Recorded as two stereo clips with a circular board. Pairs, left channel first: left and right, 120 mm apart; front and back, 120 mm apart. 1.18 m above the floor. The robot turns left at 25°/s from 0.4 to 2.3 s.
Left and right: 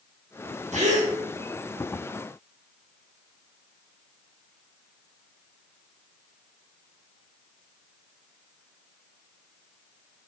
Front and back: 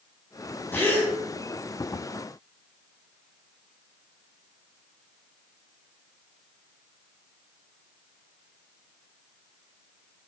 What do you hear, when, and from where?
0.7 s a gasp: 75° right, 0.7 m; by 1.1 s 85° right, 0.7 m